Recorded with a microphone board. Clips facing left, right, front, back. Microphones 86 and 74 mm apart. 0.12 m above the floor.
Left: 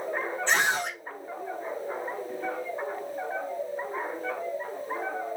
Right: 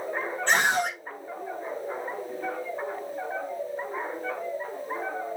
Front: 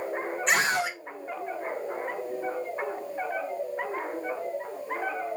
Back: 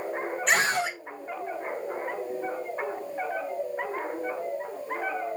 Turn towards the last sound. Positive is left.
turn(degrees=-65)